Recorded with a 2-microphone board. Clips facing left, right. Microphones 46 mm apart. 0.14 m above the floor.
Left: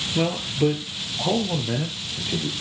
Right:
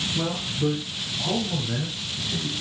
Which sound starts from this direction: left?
A man speaking, at 0.1 s.